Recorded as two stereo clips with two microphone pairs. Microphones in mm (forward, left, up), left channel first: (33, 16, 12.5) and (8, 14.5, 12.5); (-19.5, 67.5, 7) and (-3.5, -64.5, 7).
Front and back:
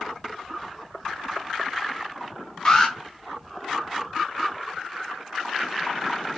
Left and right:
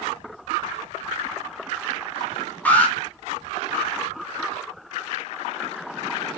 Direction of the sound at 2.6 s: 30° left.